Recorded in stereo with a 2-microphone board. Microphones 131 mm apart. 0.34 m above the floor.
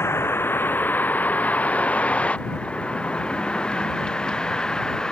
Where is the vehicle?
20° left (ahead or behind); by 5.1 s 5° left (ahead or behind).